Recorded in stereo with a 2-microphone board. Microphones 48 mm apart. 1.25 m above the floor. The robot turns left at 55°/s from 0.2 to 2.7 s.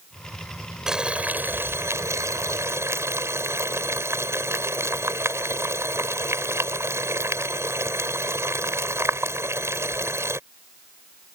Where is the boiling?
10° right; by 10.4 s 110° right.